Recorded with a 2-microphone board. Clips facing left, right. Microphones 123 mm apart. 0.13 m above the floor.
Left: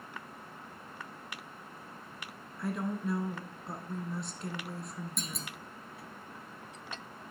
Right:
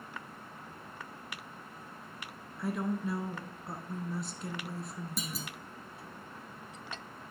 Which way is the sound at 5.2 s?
5° right (ahead or behind).